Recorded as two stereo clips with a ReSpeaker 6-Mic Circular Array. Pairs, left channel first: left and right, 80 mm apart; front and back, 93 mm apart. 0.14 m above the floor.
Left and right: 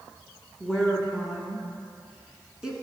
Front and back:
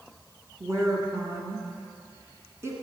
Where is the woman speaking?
160° right, 1.4 m.